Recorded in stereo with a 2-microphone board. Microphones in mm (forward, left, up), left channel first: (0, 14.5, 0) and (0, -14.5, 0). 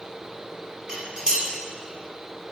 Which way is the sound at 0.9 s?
30° right (ahead or behind).